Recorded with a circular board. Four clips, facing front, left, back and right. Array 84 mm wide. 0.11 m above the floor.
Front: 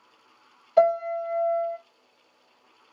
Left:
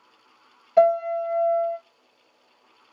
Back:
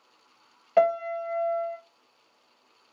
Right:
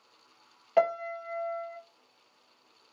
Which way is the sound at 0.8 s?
150° right.